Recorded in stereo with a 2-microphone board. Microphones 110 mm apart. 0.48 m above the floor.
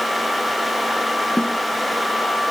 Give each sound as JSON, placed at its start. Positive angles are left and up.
{"t": 1.4, "sound": "a snare drum", "side_deg": 10}